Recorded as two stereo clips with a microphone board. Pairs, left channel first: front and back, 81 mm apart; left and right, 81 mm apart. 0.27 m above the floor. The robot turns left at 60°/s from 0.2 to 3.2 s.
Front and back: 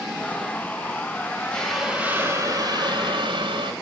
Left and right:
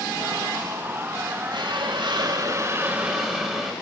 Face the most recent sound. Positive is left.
turn(degrees=-175)